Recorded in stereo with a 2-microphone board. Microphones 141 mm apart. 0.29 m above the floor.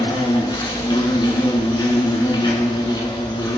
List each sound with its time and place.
0.0 s an insect: 30° left (ahead or behind), 0.9 m